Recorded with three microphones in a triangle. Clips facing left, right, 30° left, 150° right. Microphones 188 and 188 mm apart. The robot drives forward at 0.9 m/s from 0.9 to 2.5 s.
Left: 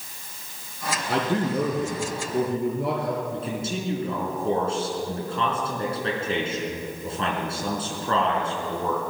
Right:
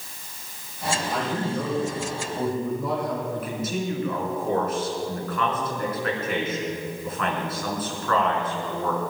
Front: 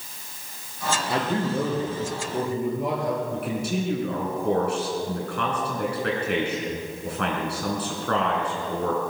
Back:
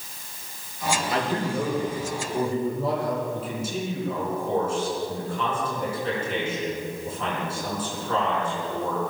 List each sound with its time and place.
1.1 s a man speaking: 90° left, 5 m; by 3.2 s 105° left, 5 m
3.3 s a man speaking: 30° left, 5 m